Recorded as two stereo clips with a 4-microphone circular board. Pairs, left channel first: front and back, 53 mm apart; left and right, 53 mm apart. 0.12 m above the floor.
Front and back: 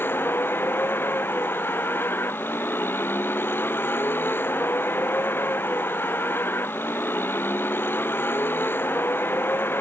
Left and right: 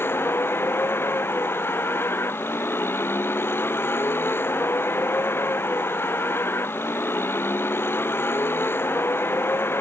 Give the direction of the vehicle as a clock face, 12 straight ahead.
10 o'clock.